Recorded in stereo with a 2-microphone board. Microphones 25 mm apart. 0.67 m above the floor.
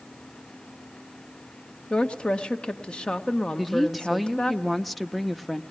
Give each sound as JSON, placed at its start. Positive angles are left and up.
{"t": 1.9, "sound": "a woman speaking", "side_deg": 40, "distance_m": 1.2}
{"t": 3.6, "sound": "a woman speaking", "side_deg": 5, "distance_m": 0.8}